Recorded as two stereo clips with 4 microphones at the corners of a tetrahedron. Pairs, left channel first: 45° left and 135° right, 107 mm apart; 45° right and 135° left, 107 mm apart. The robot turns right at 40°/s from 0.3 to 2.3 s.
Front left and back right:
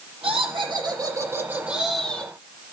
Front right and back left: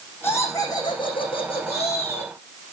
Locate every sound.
0.2 s laughter: 115° right, 7 m; by 2.3 s 35° right, 7 m